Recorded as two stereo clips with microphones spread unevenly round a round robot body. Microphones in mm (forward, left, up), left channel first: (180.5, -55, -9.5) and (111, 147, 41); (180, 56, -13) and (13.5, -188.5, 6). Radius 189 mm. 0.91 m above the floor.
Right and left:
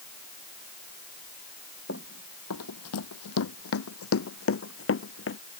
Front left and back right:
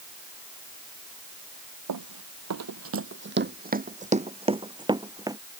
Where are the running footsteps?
130° right; by 5.4 s 45° right.